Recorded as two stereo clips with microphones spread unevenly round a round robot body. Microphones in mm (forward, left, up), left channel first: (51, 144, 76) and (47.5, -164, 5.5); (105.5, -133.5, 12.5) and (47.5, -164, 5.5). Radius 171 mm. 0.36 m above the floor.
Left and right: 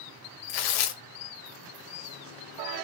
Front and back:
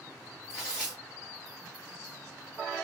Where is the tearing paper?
75° left, 0.5 m.